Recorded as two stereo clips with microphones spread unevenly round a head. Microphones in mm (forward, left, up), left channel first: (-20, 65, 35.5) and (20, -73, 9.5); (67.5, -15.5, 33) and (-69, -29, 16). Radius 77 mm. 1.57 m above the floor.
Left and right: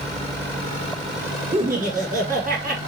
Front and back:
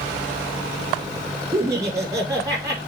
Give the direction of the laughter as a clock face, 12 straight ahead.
4 o'clock.